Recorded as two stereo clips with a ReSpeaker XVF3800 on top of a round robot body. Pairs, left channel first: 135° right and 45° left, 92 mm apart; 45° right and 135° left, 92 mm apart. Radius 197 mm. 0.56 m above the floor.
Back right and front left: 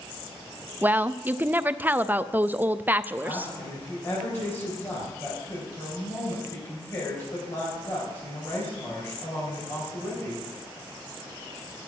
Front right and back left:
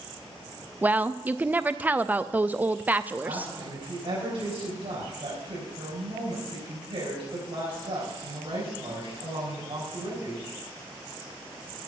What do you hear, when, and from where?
0.8 s a woman speaking: 90° left, 0.6 m
3.2 s a woman speaking: 165° left, 4.5 m